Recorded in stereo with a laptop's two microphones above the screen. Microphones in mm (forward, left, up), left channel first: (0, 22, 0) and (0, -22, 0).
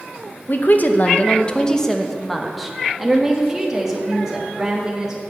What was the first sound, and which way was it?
A woman speaking, 45° left (ahead or behind).